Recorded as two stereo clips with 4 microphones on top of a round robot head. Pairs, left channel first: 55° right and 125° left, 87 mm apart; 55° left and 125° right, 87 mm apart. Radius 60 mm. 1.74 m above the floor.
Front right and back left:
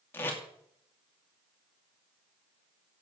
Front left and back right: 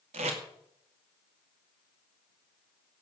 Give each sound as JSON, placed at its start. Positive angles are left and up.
{"t": 0.1, "sound": "tape being pulled", "azimuth_deg": -125, "distance_m": 2.0}